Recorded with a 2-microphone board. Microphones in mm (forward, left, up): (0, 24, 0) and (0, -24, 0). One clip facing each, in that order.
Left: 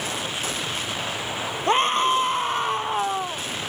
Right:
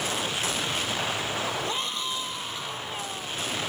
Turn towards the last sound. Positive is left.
turn(degrees=50)  # may be behind; listen again after turning